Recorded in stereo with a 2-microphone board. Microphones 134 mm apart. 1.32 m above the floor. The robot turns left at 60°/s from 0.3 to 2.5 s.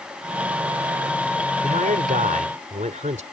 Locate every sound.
1.6 s a man speaking: 65° right; by 3.2 s 115° right